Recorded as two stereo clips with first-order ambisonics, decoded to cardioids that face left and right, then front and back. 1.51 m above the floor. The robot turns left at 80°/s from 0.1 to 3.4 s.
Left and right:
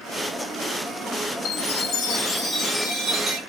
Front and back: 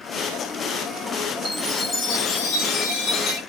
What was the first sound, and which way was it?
A chime, 110° left.